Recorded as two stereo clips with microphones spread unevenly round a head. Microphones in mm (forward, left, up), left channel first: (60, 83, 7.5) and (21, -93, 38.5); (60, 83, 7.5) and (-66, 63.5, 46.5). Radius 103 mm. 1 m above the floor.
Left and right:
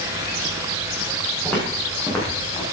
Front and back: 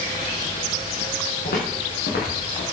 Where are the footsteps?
5° right, 4.5 m; by 2.6 s 5° left, 3.5 m.